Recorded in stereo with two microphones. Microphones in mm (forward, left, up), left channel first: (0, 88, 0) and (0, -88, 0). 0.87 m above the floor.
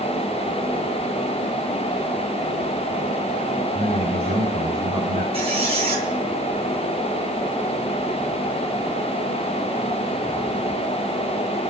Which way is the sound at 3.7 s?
40° right (ahead or behind).